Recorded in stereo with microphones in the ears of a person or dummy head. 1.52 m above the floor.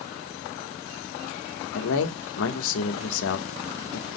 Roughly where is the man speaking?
Left.